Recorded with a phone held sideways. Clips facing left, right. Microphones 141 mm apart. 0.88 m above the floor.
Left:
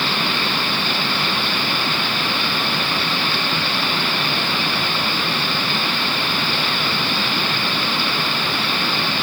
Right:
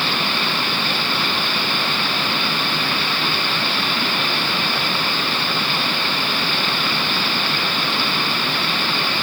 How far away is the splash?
No splash in this recording.